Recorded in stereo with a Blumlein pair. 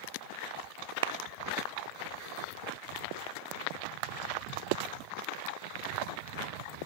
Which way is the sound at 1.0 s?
55° right.